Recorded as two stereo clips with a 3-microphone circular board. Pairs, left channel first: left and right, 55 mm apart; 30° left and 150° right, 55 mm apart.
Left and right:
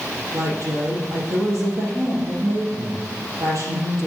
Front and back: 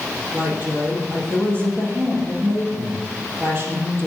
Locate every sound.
0.3 s a woman speaking: 100° right, 3.5 m